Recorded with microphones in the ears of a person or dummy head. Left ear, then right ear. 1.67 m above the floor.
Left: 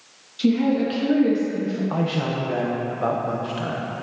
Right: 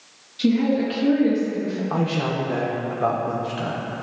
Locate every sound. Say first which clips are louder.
0.4 s a woman speaking: even; 5° left (ahead or behind), 2.5 m
1.9 s a man speaking: right 3 dB; 5° left (ahead or behind), 1.1 m